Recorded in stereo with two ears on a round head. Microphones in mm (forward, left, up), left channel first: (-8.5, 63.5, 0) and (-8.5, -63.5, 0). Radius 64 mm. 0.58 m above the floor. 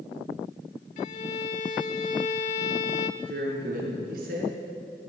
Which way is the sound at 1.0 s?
50° left (ahead or behind).